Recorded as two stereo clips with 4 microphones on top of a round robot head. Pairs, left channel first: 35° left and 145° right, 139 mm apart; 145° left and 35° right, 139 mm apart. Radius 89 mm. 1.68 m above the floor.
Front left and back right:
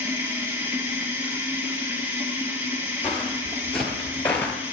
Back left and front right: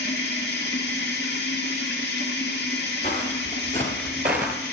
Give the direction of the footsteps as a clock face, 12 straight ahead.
8 o'clock.